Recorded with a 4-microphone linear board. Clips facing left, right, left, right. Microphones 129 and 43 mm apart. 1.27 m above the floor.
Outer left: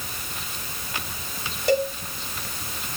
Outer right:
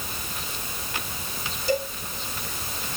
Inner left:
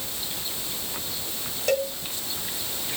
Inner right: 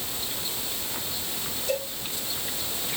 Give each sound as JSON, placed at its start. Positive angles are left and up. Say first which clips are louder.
{"t": 1.7, "sound": "a cowbell", "louder": "outer left 4 dB, inner left 6 dB", "side_deg": 70, "distance_m": 2.5}